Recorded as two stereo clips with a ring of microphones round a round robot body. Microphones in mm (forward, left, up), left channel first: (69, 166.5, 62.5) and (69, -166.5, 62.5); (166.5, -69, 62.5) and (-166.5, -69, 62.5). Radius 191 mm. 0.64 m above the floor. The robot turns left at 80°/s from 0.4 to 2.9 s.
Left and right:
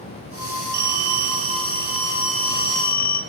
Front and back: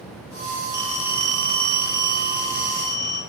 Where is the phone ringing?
80° right, 1.4 m; by 3.2 s 105° left, 1.4 m.